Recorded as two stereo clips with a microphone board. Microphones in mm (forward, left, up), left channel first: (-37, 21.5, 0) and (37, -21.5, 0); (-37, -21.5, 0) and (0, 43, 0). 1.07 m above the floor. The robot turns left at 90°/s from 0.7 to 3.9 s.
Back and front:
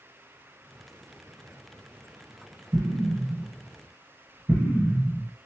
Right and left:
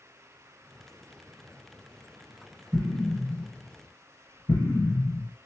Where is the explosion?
10° left, 1.5 m; by 5.3 s 95° right, 1.5 m.